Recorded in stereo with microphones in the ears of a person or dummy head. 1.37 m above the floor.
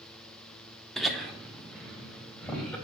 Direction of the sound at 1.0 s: Centre (ahead or behind).